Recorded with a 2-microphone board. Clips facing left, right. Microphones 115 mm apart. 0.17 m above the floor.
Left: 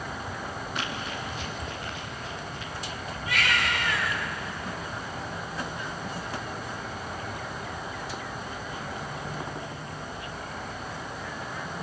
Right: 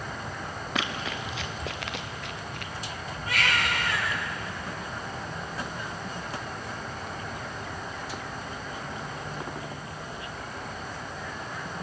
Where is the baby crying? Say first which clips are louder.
Even; 40° right (ahead or behind), 7.5 m.